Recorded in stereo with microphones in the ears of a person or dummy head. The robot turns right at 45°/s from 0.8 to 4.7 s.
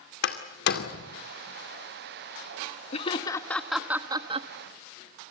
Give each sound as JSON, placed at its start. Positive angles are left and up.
{"t": 0.2, "sound": "a door slam", "side_deg": 70, "distance_m": 2.0}
{"t": 2.9, "sound": "laughter", "side_deg": 40, "distance_m": 1.3}